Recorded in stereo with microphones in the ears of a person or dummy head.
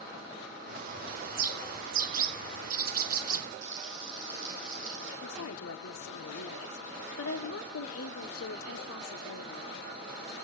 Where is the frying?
70° right (ahead or behind), 7.5 m.